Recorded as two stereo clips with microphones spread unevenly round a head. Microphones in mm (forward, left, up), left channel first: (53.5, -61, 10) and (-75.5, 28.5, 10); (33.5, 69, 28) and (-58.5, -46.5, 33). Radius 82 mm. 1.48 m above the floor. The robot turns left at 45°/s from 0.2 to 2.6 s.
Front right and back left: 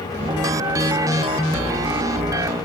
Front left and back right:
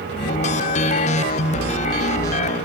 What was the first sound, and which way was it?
Only background noise.